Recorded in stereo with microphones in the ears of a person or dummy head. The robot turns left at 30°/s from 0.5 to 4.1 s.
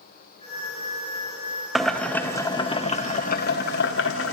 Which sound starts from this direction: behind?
Boiling, at 1.8 s.